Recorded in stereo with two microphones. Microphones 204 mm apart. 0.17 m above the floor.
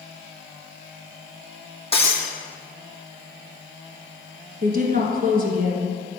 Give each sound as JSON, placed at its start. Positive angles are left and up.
{"t": 1.9, "sound": "breaking glass", "side_deg": 30, "distance_m": 2.0}
{"t": 4.6, "sound": "a woman speaking", "side_deg": -45, "distance_m": 1.8}